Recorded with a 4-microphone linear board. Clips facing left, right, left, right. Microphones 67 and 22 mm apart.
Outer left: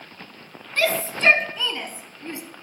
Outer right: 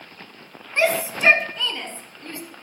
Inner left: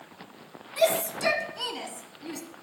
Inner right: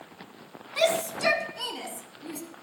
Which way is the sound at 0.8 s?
25° right (ahead or behind).